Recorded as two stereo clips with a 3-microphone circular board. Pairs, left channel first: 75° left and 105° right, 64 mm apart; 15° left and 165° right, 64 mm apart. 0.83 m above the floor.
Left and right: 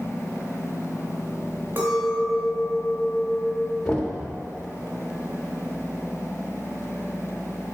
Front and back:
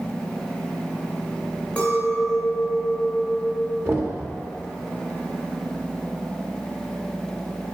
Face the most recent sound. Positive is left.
turn(degrees=150)